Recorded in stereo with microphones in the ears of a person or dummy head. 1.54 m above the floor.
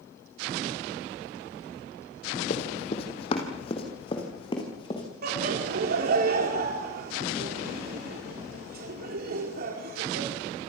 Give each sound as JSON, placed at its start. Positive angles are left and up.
{"t": 2.5, "sound": "running footsteps", "side_deg": 40, "distance_m": 3.5}
{"t": 5.2, "sound": "laughter", "side_deg": -60, "distance_m": 5.0}